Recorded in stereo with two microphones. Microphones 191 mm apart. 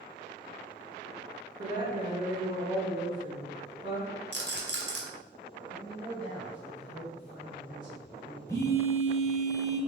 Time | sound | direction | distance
1.6 | a woman speaking | 20° right (ahead or behind) | 1.5 m
4.3 | a rattle | 65° right (ahead or behind) | 1.0 m
5.7 | a man speaking | 25° right (ahead or behind) | 1.9 m
8.5 | a phone buzzing | 15° left (ahead or behind) | 0.9 m